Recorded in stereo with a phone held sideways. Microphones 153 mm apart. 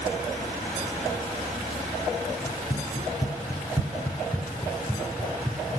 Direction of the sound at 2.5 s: 45° left (ahead or behind).